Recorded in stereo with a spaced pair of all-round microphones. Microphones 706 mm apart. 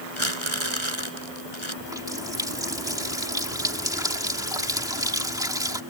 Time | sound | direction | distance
0.2 | crumpling | 40° right (ahead or behind) | ?
1.8 | a running tap | 5° right (ahead or behind) | ?